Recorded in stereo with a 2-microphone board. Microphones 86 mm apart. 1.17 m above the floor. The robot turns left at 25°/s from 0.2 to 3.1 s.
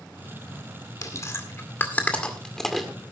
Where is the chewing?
45° left (ahead or behind), 2.0 m; by 2.9 s centre (ahead or behind), 2.0 m.